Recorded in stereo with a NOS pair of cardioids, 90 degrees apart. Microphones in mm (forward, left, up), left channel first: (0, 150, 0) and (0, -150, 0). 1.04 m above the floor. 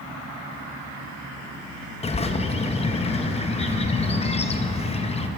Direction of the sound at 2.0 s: 20° left.